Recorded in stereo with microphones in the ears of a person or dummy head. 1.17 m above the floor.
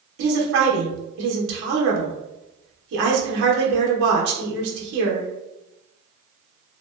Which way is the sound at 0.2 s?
65° right (ahead or behind).